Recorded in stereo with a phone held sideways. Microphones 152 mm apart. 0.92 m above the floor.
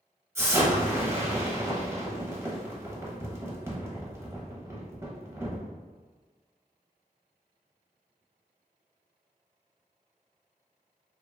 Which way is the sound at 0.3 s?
15° right (ahead or behind).